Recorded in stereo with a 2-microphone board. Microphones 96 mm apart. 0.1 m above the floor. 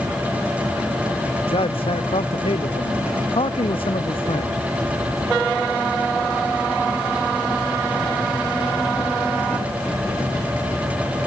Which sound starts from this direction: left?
A man speaking, at 1.5 s.